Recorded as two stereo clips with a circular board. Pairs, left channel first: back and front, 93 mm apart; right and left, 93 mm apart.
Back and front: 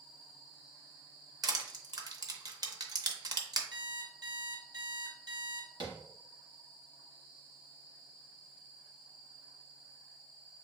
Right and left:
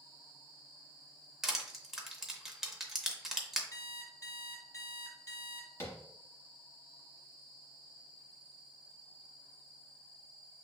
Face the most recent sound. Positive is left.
turn(degrees=-30)